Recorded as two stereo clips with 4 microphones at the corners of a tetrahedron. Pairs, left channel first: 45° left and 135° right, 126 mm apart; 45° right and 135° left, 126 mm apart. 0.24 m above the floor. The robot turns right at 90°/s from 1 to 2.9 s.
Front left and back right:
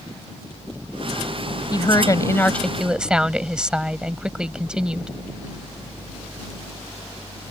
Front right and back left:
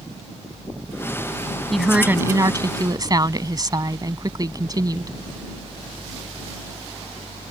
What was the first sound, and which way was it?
A woman speaking, 40° left.